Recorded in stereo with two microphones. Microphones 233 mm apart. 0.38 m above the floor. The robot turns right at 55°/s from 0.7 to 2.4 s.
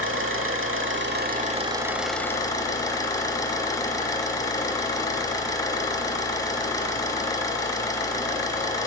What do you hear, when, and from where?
0.0 s an engine running: 75° right, 0.9 m; by 8.9 s 20° left, 0.9 m